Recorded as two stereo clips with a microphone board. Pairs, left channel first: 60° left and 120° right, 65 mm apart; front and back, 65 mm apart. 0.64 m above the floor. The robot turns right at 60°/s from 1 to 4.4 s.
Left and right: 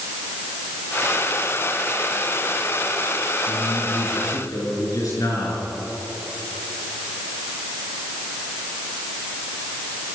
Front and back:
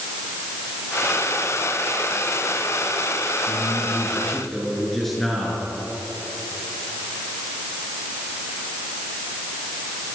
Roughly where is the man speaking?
Ahead left.